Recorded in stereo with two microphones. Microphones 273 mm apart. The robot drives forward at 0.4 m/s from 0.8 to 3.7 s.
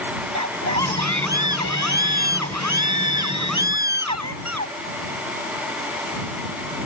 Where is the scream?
85° right; by 4.7 s 80° right.